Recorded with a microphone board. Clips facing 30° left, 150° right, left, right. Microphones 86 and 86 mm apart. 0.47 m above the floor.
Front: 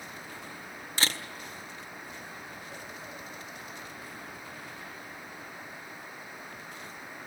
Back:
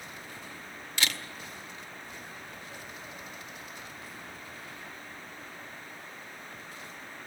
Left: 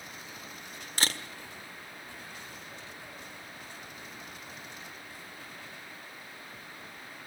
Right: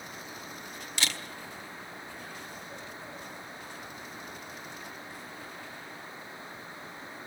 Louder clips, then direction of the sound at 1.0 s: Front 1 dB, left 2 dB; 65° left.